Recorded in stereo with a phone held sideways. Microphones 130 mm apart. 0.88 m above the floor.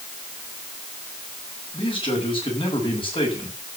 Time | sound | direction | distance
1.7 | a man speaking | 40° left (ahead or behind) | 7.5 m